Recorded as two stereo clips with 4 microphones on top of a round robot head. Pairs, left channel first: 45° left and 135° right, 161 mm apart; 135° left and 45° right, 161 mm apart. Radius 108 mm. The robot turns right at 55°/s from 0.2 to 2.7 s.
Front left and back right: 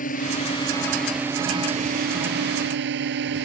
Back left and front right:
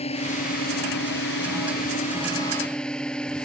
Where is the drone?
85° left; by 3.5 s 140° right.